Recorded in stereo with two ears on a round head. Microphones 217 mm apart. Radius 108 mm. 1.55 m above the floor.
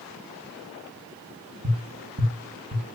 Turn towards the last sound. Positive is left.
turn(degrees=-60)  # may be behind; listen again after turning